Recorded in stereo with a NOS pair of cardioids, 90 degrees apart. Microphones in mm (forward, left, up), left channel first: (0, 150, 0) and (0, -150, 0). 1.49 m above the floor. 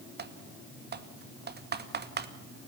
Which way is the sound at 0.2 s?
35° right.